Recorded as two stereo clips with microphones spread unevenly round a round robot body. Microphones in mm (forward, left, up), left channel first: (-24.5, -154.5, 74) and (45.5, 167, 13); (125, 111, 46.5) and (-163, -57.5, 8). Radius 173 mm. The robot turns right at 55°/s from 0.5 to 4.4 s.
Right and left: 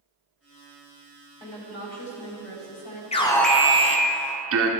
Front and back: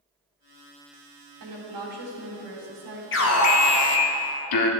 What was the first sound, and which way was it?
A woman speaking, straight behind.